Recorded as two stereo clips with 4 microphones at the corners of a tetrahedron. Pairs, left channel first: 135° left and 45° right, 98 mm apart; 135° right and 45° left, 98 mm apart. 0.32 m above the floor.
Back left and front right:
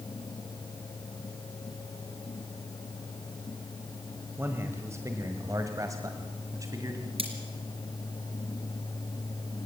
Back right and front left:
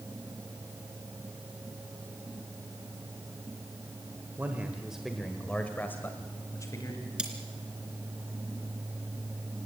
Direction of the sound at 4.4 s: 5° right.